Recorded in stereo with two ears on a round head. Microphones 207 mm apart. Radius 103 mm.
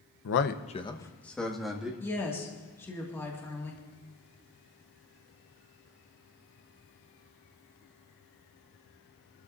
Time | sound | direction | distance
0.2 | a man speaking | 60° left (ahead or behind) | 0.8 m
2.0 | a woman speaking | 10° left (ahead or behind) | 2.0 m